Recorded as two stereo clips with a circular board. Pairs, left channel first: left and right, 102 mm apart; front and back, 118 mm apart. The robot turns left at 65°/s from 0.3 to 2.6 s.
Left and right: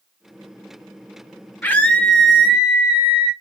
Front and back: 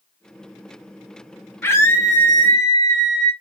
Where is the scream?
45° left, 0.8 m; by 3.3 s 20° right, 0.8 m.